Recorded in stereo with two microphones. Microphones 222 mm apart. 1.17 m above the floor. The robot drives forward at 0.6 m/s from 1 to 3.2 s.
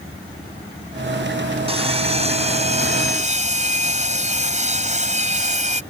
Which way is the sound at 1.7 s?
25° right (ahead or behind).